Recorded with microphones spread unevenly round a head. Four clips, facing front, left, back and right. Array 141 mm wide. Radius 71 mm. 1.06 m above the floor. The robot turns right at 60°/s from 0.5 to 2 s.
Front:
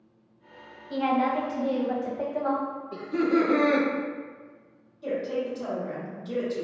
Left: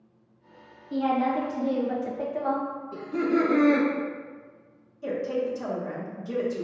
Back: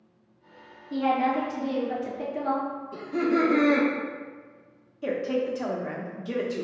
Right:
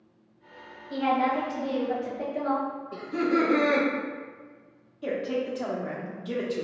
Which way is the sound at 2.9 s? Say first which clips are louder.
Left 1 dB, front 1 dB; 20° right.